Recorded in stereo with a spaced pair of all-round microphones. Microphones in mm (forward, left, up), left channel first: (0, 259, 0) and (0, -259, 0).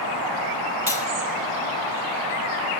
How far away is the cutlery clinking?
About 5.5 m.